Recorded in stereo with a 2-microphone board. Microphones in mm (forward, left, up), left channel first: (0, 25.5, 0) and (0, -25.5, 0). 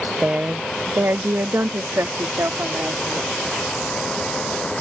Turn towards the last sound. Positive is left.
turn(degrees=-65)  # may be behind; listen again after turning